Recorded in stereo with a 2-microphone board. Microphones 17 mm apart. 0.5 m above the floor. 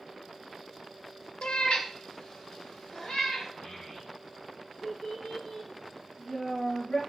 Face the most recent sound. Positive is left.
turn(degrees=75)  # may be behind; listen again after turning